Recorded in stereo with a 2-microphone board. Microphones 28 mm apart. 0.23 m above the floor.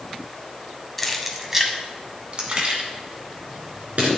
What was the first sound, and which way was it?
Keys jangling, 5° left (ahead or behind).